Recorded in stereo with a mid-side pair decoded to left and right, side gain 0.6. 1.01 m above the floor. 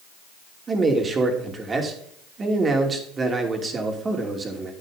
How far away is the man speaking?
About 2.5 m.